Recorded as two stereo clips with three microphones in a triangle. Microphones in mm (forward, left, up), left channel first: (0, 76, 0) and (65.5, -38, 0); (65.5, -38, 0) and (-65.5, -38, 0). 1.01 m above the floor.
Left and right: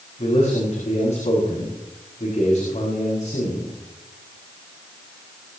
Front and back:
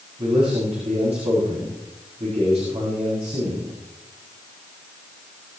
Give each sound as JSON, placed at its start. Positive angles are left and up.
{"t": 0.2, "sound": "a man speaking", "azimuth_deg": 145, "distance_m": 7.5}